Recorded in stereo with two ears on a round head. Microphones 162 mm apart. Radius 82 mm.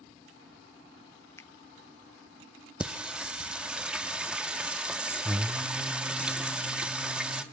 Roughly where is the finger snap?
Centre.